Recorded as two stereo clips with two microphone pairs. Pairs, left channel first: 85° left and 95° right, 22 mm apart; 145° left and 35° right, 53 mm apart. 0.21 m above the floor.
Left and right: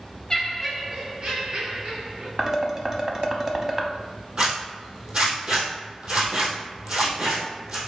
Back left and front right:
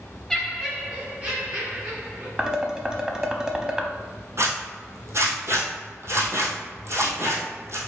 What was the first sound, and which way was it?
Laughter, 75° left.